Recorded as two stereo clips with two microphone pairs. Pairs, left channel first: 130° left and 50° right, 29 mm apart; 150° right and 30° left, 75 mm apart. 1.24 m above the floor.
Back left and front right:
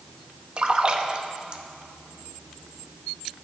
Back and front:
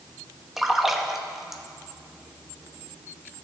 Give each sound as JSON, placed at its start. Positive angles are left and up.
{"t": 0.6, "sound": "a splash", "azimuth_deg": -55, "distance_m": 0.6}